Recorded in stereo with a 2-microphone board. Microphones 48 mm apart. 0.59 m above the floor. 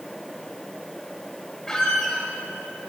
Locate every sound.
1.7 s a squeak: 15° left (ahead or behind), 1.4 m